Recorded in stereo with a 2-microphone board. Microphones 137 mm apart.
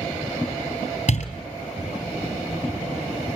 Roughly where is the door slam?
Left.